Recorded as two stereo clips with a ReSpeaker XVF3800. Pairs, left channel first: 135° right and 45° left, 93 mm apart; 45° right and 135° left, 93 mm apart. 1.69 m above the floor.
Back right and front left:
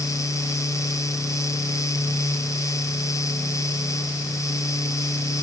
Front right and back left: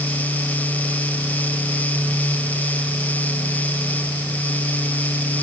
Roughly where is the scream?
I don't hear a scream.